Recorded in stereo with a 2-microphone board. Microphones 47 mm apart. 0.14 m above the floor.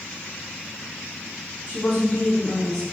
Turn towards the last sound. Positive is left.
turn(degrees=5)  # may be behind; listen again after turning